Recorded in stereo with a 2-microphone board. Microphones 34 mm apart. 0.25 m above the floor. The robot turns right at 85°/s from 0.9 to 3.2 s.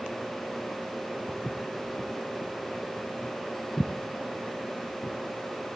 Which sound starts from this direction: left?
Footsteps, at 1.3 s.